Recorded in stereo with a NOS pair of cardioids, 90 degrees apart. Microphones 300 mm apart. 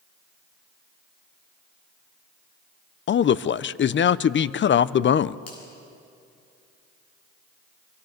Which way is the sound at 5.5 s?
60° left.